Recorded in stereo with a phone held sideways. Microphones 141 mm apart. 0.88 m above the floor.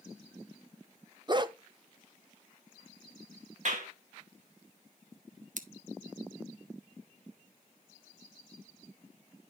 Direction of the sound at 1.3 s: 35° right (ahead or behind).